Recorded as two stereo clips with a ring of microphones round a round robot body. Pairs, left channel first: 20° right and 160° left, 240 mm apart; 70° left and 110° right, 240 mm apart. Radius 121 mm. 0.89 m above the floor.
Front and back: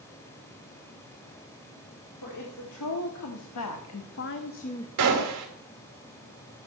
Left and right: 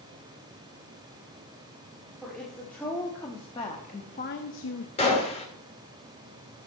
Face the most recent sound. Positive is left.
turn(degrees=135)